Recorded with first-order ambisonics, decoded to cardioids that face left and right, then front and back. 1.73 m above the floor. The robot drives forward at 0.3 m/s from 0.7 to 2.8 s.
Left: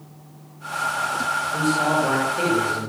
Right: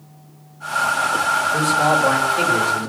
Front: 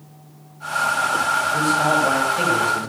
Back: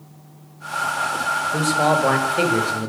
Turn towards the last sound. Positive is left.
turn(degrees=-165)